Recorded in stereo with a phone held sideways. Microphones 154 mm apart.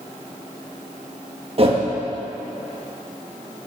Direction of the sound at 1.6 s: 40° right (ahead or behind).